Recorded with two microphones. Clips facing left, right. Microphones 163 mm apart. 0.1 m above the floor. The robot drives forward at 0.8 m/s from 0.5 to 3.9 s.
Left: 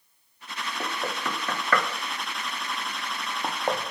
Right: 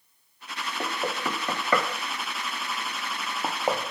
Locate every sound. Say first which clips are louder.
0.8 s knocking: right 2 dB; 10° right (ahead or behind), 1.3 m